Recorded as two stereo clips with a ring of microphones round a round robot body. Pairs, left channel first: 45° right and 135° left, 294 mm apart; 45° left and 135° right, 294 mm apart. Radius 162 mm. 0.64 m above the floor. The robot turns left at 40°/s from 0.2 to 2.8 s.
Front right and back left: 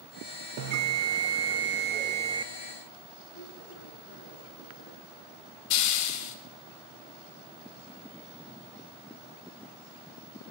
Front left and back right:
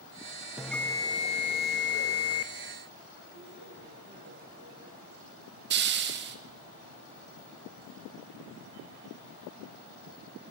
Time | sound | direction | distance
0.6 | a bell | 140° left | 0.7 m
3.3 | a man speaking | 75° right | 8 m
5.7 | a hiss | 80° right | 1.1 m